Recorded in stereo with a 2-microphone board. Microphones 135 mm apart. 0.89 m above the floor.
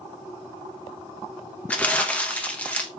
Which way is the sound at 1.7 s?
10° left (ahead or behind).